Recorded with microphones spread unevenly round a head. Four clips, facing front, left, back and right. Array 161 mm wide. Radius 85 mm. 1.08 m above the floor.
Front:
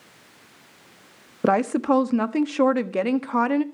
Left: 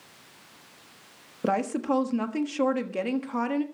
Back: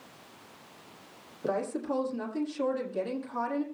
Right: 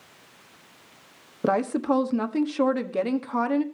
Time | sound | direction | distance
1.4 | a woman speaking | 10° right | 1.4 m